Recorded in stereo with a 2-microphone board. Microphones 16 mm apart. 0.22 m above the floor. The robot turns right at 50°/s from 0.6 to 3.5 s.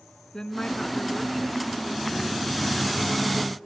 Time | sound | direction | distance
0.3 | a woman speaking | 125° left | 2.5 m